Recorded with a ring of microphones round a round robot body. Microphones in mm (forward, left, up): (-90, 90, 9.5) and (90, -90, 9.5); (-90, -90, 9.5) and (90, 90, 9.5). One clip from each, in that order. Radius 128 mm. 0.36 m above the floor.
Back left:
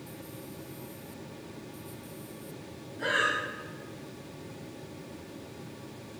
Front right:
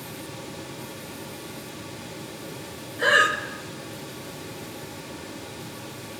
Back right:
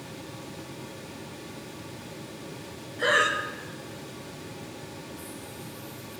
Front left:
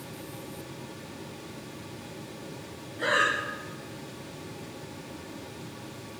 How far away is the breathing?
About 0.8 m.